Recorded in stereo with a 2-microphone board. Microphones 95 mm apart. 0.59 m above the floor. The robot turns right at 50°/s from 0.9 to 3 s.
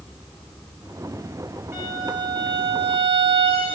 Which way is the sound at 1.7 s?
155° right.